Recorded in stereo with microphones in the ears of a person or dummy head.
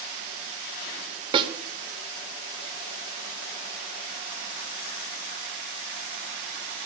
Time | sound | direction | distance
1.3 | a snare drum | 30° right (ahead or behind) | 0.9 m